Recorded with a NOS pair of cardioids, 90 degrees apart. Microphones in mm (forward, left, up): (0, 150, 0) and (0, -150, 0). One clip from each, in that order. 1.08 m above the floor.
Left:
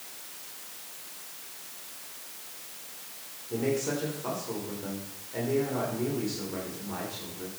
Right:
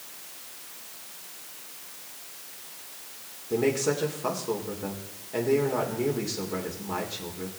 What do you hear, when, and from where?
3.5 s a man speaking: 45° right, 3 m